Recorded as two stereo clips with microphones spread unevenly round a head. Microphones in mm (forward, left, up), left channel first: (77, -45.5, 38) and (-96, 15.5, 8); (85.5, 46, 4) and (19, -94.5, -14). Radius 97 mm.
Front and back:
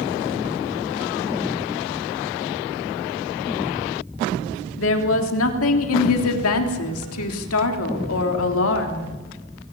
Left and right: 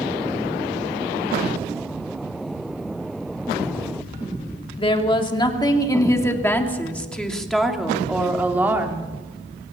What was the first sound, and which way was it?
A woman speaking, 10° left.